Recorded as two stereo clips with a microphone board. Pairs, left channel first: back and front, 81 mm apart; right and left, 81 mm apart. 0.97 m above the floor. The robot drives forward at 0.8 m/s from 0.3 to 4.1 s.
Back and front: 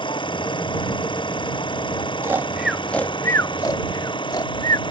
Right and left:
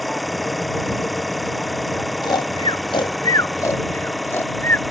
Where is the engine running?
Straight behind.